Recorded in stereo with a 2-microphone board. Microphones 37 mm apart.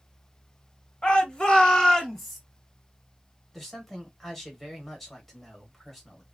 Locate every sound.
1.0 s a shout: 30° left (ahead or behind), 1.2 m; by 2.4 s centre (ahead or behind), 1.2 m
3.5 s a man speaking: 5° left (ahead or behind), 1.3 m